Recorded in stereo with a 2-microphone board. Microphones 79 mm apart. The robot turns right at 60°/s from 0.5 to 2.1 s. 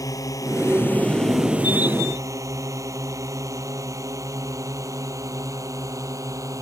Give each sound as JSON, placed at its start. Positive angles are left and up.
{"t": 0.0, "sound": "a drone", "side_deg": 50}